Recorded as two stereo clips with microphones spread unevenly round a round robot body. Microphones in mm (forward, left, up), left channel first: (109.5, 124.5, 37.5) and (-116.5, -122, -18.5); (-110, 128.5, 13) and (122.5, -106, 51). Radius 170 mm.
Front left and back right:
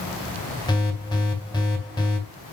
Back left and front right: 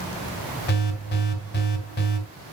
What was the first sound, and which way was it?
An alarm, 130° left.